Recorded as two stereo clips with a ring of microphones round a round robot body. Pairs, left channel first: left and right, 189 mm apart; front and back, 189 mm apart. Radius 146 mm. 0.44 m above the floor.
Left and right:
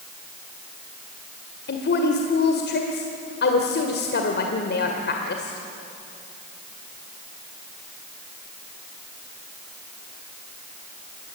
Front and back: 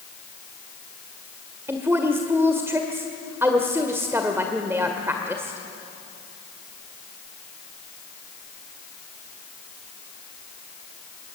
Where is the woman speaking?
105° left, 1.6 m.